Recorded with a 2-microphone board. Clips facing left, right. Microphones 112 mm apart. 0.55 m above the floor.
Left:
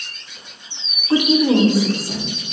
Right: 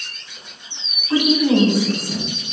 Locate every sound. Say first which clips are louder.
1.1 s a woman speaking: left 1 dB; 30° left (ahead or behind), 1.3 m; by 2.3 s 40° left (ahead or behind), 3 m